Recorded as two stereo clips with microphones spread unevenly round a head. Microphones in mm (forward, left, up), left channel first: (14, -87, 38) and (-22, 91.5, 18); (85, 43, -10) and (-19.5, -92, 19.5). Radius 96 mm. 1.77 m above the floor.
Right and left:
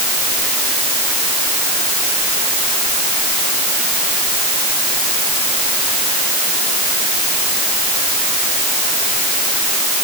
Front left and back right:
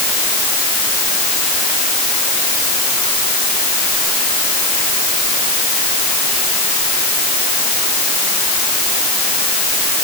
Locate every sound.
Only background noise.